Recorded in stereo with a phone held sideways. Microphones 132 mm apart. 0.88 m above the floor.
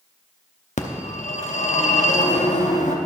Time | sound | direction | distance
0.8 | a phone ringing | 75° left (ahead or behind) | 0.7 m